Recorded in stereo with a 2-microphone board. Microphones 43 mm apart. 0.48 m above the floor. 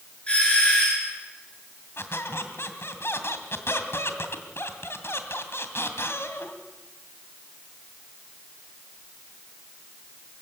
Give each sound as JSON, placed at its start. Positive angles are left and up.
{"t": 0.3, "sound": "a doorbell", "side_deg": 25, "distance_m": 9.5}
{"t": 2.0, "sound": "a squeak", "side_deg": 70, "distance_m": 2.5}